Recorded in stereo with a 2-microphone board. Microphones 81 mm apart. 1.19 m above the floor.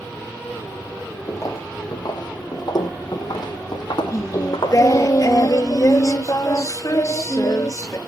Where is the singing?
40° left (ahead or behind), 1.0 m.